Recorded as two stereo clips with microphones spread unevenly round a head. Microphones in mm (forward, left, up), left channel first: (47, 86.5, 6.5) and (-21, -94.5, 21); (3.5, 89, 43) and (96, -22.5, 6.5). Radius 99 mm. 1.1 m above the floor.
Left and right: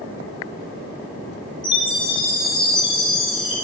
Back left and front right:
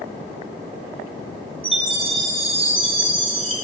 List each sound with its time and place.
1.6 s a chime: straight ahead, 9.5 m